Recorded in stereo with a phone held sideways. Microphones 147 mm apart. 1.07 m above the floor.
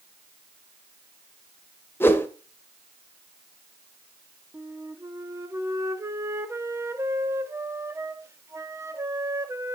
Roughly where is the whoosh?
Centre.